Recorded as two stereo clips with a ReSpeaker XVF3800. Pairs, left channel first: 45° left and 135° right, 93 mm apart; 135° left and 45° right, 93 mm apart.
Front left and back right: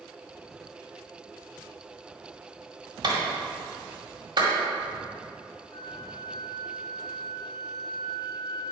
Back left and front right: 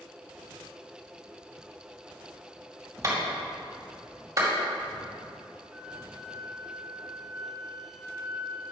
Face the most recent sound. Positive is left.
turn(degrees=40)